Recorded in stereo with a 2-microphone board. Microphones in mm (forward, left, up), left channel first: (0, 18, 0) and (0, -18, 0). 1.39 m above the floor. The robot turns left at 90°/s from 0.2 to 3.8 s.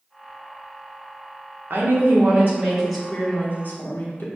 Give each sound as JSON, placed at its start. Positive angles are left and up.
{"t": 1.7, "sound": "a woman speaking", "azimuth_deg": -70, "distance_m": 1.2}